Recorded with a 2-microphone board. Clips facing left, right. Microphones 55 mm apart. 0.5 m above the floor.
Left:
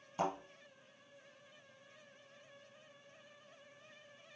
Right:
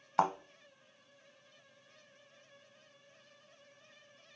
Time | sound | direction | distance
0.2 | a thud | 75° right (ahead or behind) | 0.9 m